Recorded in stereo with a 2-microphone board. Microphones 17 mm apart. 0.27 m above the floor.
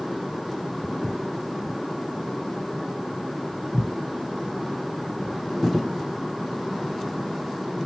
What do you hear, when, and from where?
0.8 s footsteps: 40° right (ahead or behind), 1.0 m; by 5.4 s 55° left (ahead or behind), 2 m